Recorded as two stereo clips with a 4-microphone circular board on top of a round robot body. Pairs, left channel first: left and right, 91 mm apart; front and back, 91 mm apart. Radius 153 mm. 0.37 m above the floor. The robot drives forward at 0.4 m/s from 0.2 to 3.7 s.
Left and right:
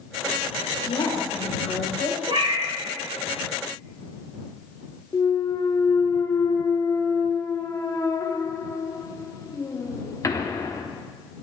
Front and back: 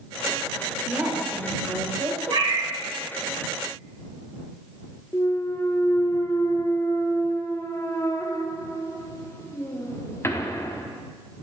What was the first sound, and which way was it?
A woman speaking, 100° left.